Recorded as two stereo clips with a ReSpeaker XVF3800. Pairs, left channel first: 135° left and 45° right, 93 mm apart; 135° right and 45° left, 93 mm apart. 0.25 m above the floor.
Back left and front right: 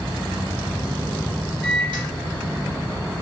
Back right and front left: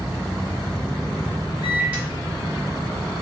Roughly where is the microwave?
Ahead right.